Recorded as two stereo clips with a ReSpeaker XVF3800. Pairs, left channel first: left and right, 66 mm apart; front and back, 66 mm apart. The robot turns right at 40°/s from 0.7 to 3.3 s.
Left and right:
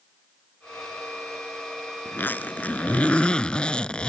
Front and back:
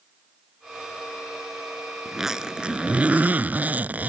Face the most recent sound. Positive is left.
turn(degrees=150)